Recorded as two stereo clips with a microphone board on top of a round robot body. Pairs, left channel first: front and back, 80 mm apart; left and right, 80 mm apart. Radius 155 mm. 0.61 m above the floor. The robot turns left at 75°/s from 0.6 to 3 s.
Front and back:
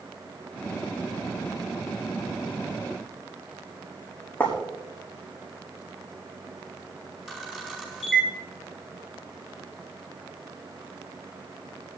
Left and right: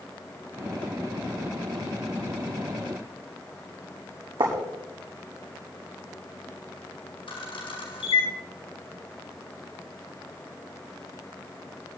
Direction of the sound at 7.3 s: 100° left.